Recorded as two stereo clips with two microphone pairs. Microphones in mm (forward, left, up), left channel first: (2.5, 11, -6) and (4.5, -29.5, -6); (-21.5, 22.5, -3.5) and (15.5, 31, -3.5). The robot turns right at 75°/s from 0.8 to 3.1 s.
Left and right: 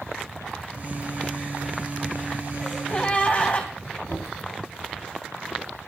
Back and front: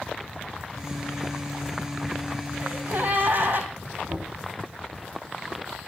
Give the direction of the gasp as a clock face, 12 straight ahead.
12 o'clock.